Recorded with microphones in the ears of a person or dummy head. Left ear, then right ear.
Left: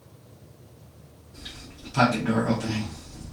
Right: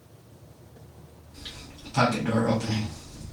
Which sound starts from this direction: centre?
A sliding door, at 1.3 s.